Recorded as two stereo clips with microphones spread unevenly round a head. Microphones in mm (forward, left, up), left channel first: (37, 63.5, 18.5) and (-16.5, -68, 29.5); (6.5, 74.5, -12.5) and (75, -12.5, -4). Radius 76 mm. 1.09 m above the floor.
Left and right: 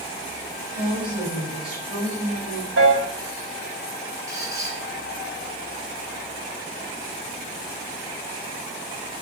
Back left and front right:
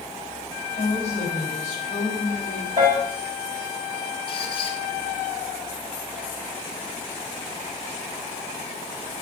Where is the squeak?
Straight behind, 2 m.